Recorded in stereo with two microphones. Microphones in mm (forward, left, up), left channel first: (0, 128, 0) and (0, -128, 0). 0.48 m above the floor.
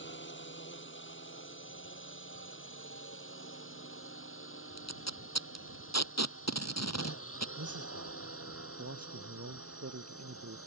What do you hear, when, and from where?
0.0 s a drone: 45° left (ahead or behind); by 10.7 s 60° left (ahead or behind)
4.8 s tape being pulled: 85° left
7.6 s a man speaking: 70° right (ahead or behind)